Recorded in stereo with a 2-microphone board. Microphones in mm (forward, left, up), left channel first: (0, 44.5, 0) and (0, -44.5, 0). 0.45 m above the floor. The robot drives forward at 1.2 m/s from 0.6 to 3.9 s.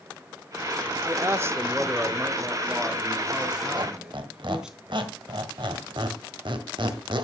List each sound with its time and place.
1.0 s a man speaking: 35° right (ahead or behind), 0.9 m; by 4.8 s 10° right (ahead or behind), 3.5 m
3.8 s a squeak: 65° right (ahead or behind), 1.7 m